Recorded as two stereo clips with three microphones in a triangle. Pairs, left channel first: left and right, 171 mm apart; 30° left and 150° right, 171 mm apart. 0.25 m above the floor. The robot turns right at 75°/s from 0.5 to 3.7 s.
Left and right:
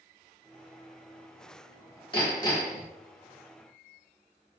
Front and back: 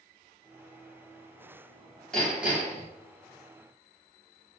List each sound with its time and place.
2.1 s hammering: 110° left, 1.1 m; by 2.9 s 165° left, 1.1 m